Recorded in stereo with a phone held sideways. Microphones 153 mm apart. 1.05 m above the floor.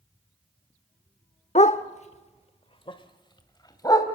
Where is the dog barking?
50° left (ahead or behind), 0.9 m; by 4.0 s 25° left (ahead or behind), 2.5 m.